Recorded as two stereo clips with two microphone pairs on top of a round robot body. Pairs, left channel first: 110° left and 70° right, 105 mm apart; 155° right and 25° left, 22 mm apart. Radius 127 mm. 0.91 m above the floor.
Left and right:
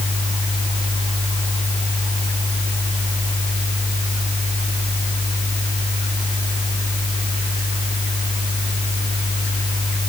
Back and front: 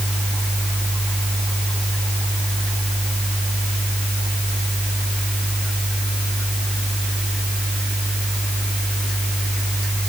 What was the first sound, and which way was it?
Only background noise.